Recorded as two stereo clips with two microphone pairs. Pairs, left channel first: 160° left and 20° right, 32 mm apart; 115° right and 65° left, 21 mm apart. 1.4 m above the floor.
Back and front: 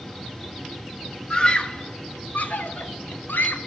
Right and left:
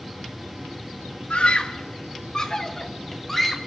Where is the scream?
135° right, 1.8 m; by 3.6 s 170° left, 3.5 m.